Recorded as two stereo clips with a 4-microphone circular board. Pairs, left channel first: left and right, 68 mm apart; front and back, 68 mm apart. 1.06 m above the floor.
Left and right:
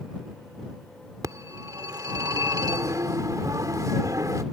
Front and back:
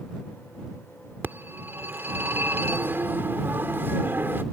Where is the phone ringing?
120° right.